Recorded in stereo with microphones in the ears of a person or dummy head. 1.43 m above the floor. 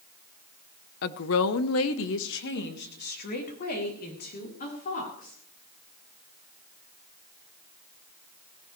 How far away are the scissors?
No scissors in this recording.